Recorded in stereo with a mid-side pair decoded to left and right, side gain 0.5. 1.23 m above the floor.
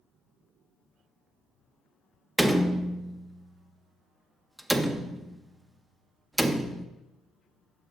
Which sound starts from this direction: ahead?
A door slam, at 2.4 s.